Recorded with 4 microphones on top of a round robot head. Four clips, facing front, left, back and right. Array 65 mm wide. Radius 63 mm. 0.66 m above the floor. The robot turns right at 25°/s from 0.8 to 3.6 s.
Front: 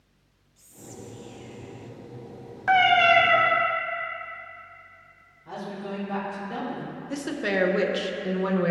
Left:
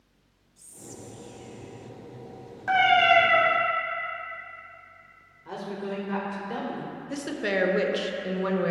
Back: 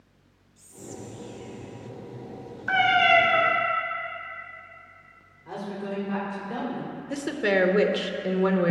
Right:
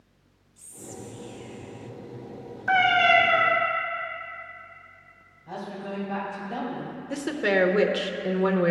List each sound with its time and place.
0.6 s whispering: 100° right, 0.7 m; by 1.9 s 75° right, 0.7 m
2.7 s a cat meowing: 10° left, 2.5 m; by 3.5 s 30° left, 2.5 m
5.5 s a woman speaking: 100° left, 3 m
7.1 s a woman speaking: 135° right, 0.7 m